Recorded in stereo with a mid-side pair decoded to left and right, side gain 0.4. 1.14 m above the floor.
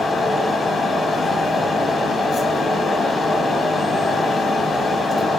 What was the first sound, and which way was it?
A fan, 40° left.